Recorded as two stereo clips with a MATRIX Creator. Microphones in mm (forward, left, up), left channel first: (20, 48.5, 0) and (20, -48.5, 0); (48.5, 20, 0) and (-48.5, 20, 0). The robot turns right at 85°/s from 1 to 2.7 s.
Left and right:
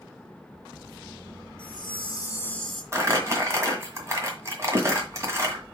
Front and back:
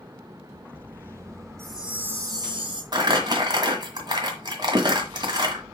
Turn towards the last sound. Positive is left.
turn(degrees=-145)